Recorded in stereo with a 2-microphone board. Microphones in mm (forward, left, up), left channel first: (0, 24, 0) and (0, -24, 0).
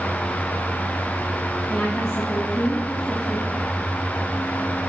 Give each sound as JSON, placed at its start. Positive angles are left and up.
{"t": 1.7, "sound": "a woman speaking", "side_deg": 55, "distance_m": 1.8}